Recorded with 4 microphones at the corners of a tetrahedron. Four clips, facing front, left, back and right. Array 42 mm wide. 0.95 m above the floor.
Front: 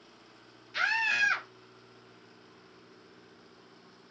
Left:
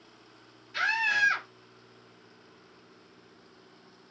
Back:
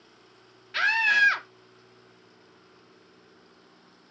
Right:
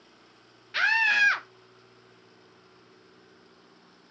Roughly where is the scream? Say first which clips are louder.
Right 4 dB, back 6 dB; behind right.